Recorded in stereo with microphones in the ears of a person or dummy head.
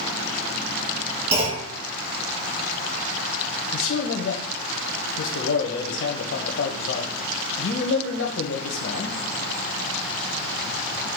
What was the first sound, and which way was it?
A clunk, 35° right (ahead or behind).